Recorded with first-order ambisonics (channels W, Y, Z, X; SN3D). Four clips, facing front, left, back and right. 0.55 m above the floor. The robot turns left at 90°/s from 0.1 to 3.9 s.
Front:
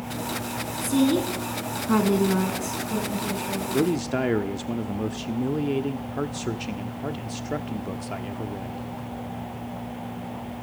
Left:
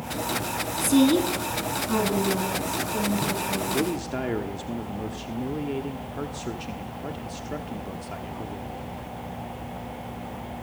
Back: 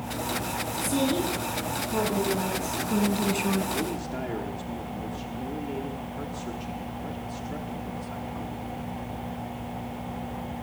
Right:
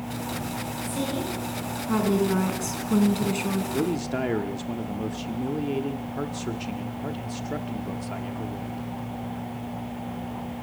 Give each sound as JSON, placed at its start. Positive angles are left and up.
{"t": 0.8, "sound": "a woman speaking", "azimuth_deg": 95, "distance_m": 4.5}
{"t": 3.7, "sound": "a man speaking", "azimuth_deg": 5, "distance_m": 1.1}